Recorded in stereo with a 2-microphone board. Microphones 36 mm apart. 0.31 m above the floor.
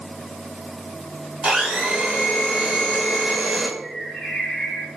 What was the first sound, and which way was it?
A blender, 35° right (ahead or behind).